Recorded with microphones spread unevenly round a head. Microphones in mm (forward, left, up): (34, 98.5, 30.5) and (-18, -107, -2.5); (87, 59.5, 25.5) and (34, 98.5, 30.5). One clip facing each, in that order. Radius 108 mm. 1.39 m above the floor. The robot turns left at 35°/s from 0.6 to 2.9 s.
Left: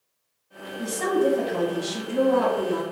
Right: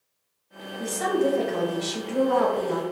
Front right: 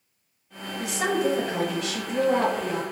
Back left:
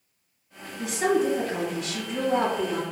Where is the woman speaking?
30° right, 1.2 m; by 2.8 s 100° right, 1.2 m.